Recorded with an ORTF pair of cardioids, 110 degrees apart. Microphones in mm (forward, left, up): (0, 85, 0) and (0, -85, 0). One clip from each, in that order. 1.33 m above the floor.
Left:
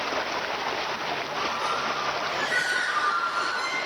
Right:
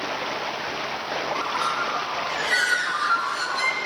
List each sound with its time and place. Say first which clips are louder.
1.4 s a bird: right 2 dB; 50° right, 1.7 m